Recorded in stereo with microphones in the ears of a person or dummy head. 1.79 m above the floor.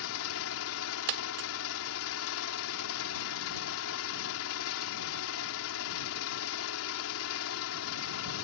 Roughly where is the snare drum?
I don't hear a snare drum.